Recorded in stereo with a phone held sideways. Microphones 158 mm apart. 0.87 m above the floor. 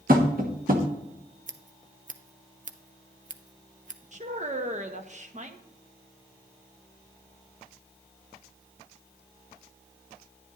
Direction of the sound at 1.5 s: 50° right (ahead or behind).